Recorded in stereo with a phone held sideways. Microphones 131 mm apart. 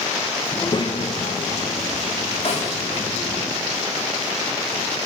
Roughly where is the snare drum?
Left.